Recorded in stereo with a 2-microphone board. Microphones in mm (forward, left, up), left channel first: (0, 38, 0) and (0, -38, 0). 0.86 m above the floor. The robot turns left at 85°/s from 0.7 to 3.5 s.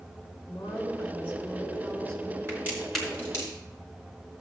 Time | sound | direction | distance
0.5 | a woman speaking | 75° left | 3 m
2.5 | a crack | 35° right (ahead or behind) | 4 m